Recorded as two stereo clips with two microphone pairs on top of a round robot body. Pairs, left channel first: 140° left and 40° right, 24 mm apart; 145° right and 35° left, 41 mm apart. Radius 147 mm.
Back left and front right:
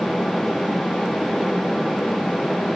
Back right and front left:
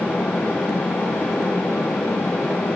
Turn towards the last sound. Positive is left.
No sound to turn to.